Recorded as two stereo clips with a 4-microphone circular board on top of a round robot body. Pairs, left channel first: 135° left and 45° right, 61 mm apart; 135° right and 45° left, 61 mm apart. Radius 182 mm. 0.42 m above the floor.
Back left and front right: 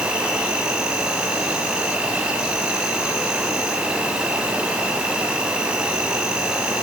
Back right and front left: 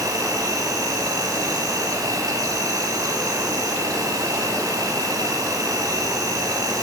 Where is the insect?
30° left, 4 m.